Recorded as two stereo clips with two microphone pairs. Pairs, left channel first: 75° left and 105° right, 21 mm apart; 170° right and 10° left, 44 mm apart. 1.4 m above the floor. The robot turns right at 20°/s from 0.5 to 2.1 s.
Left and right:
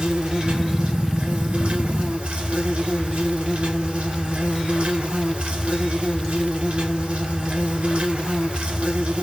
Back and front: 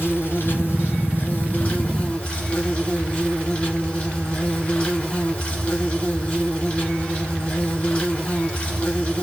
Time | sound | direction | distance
0.0 | an insect | 140° right | 1.7 m